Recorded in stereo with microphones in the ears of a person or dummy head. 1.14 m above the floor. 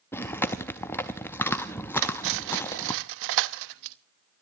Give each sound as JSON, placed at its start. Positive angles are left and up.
{"t": 0.1, "sound": "chewing", "side_deg": 10, "distance_m": 0.6}
{"t": 2.0, "sound": "cutlery clinking", "side_deg": -70, "distance_m": 0.9}